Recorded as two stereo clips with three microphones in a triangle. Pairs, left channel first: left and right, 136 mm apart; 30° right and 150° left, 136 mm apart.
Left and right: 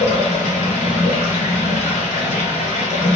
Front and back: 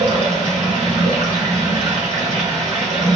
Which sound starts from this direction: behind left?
Running water, at 0.0 s.